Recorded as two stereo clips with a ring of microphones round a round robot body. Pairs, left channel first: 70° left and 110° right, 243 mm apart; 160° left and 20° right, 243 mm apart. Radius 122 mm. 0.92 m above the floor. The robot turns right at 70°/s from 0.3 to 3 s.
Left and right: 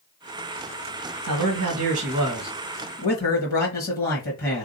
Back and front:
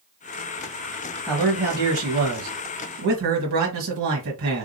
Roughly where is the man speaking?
Right.